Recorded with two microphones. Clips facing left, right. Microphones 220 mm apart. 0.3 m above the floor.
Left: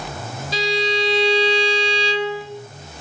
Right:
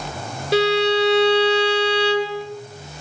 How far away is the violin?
About 3 m.